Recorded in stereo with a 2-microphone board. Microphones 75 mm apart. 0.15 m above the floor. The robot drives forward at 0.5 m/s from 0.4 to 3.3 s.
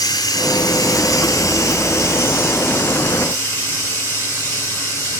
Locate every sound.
0.0 s running water: 65° left (ahead or behind), 0.9 m; by 5.2 s 25° left (ahead or behind), 1.8 m